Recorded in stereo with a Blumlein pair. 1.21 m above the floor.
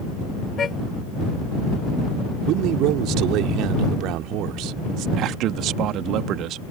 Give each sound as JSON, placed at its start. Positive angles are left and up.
{"t": 0.6, "sound": "a car horn", "azimuth_deg": 20}
{"t": 2.5, "sound": "a man speaking", "azimuth_deg": -40}
{"t": 5.2, "sound": "a man speaking", "azimuth_deg": -35}